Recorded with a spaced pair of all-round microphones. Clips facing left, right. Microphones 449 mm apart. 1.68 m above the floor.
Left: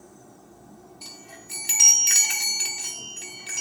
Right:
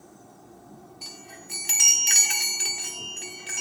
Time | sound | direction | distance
1.0 | a chime | 55° left (ahead or behind) | 4.5 m